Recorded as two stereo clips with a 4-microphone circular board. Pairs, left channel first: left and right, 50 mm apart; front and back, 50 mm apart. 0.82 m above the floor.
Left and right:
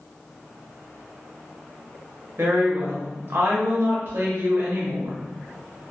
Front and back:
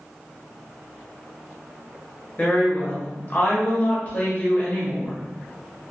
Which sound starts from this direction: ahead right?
A woman speaking, at 2.4 s.